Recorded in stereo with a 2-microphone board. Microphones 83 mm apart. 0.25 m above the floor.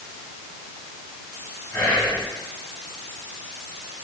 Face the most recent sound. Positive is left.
turn(degrees=20)  # may be behind; listen again after turning